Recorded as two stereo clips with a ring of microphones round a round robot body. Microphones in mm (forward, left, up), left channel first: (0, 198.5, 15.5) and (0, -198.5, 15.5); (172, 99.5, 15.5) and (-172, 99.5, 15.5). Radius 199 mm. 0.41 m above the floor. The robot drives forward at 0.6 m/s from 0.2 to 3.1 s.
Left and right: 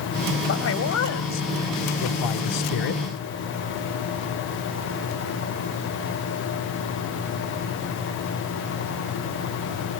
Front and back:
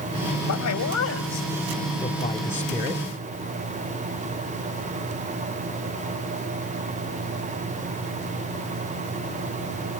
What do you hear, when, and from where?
0.5 s a man speaking: 35° left, 1.8 m; by 3.0 s 100° left, 1.2 m